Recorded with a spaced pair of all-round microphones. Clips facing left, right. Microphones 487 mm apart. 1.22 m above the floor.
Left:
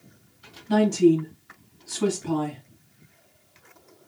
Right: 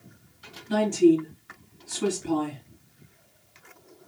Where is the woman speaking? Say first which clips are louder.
Left 1 dB; 60° left (ahead or behind), 2.0 m.